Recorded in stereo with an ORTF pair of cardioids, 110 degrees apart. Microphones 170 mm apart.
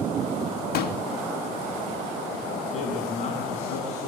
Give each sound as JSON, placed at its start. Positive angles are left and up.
{"t": 0.7, "sound": "a pop", "azimuth_deg": 70, "distance_m": 2.5}
{"t": 2.7, "sound": "a man speaking", "azimuth_deg": 40, "distance_m": 8.5}